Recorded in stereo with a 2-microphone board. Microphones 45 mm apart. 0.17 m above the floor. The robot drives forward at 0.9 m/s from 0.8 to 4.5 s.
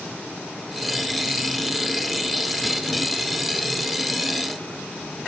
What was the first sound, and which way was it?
Only background noise.